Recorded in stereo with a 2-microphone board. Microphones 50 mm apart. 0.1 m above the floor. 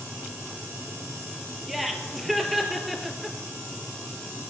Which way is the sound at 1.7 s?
Centre (ahead or behind).